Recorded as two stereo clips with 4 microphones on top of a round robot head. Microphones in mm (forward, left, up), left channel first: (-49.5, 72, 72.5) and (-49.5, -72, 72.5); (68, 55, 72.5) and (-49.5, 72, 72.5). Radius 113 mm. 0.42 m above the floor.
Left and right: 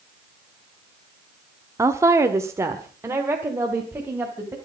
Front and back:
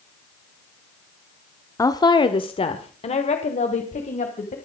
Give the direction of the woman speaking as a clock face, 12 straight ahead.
1 o'clock.